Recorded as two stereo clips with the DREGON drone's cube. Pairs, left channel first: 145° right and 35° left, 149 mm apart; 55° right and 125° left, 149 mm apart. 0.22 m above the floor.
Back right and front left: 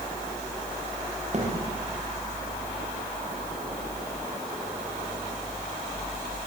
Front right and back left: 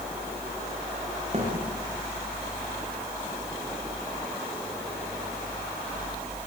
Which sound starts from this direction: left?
A thud, at 1.3 s.